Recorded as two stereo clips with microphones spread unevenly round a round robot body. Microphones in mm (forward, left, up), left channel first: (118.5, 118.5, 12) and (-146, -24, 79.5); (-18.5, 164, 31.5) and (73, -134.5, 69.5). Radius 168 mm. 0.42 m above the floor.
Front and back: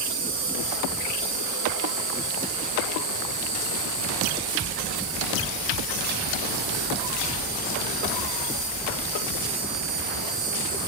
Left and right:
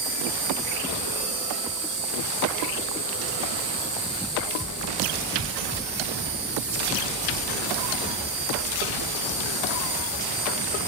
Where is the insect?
145° right, 6.5 m.